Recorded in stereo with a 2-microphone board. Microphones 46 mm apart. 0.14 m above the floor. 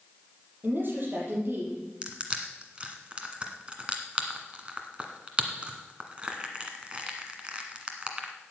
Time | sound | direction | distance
0.6 | a woman speaking | 45° right (ahead or behind) | 5.5 m
2.0 | crushing | 25° right (ahead or behind) | 1.6 m